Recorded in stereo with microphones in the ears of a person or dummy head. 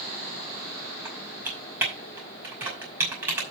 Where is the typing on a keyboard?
10° right (ahead or behind), 5.5 m.